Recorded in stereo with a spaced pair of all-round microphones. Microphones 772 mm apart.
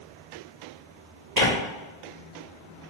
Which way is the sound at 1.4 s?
55° right (ahead or behind).